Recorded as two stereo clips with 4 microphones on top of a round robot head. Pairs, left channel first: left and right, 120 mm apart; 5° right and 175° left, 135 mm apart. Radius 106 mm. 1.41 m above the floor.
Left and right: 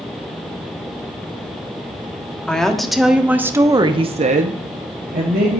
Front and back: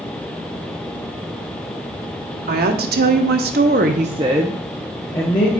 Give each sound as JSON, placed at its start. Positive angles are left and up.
{"t": 2.5, "sound": "a woman speaking", "azimuth_deg": 175, "distance_m": 1.0}